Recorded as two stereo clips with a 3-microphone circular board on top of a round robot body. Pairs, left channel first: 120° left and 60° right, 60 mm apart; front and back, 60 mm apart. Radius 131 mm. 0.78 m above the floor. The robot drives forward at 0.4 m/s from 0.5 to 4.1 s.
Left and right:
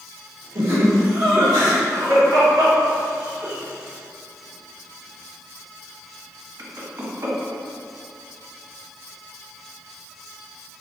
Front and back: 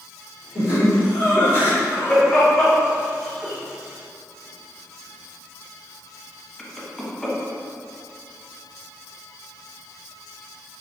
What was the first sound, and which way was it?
Laughter, 40° right.